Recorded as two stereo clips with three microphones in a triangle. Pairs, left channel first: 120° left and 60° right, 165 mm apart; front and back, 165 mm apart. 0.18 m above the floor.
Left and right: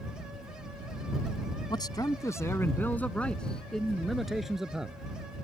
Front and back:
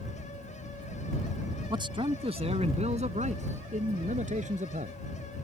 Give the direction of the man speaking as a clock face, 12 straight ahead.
7 o'clock.